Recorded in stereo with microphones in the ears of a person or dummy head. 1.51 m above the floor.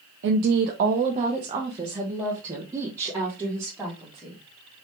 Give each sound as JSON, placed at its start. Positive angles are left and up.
{"t": 0.2, "sound": "a woman speaking", "side_deg": -65, "distance_m": 0.7}